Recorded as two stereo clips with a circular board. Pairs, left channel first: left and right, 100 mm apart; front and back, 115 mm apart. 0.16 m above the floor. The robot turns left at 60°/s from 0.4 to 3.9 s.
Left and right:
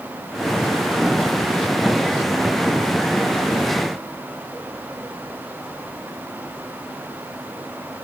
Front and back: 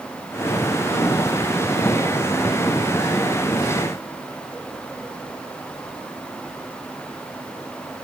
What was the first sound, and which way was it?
Only background noise.